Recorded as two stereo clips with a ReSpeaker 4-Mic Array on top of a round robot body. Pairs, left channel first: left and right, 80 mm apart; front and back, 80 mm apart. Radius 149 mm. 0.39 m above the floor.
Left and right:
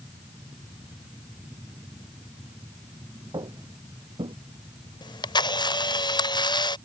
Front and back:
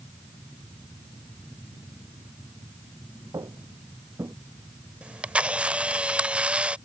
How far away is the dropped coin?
I don't hear a dropped coin.